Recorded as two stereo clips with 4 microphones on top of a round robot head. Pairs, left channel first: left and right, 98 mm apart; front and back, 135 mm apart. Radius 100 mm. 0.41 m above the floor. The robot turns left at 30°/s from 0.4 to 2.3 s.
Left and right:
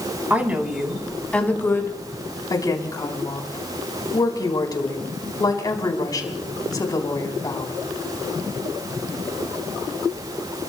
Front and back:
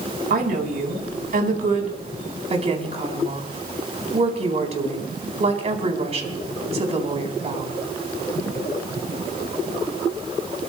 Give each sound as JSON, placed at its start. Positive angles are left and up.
{"t": 0.3, "sound": "a woman speaking", "azimuth_deg": -165, "distance_m": 4.0}